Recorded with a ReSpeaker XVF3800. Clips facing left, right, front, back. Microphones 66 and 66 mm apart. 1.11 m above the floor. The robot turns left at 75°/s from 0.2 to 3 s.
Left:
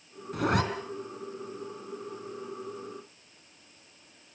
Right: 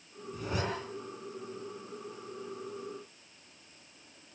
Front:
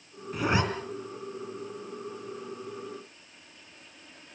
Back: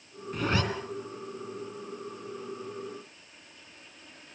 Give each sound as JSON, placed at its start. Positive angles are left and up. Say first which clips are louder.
{"t": 0.3, "sound": "a zipper", "louder": "left 9 dB, front 2 dB", "azimuth_deg": 85, "distance_m": 3.0}